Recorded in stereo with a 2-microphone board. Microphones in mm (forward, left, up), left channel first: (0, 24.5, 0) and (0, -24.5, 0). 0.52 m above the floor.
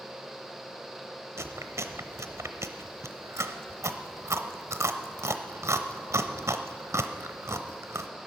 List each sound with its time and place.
1.4 s chewing: 85° right, 0.8 m